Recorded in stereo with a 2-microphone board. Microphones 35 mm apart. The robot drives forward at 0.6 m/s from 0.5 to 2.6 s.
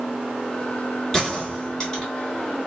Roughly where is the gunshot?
Centre.